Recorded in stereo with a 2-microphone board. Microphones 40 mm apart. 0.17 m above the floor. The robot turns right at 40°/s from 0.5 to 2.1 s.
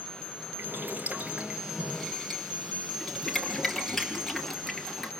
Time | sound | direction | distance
0.6 | boiling | 55° right (ahead or behind) | 3 m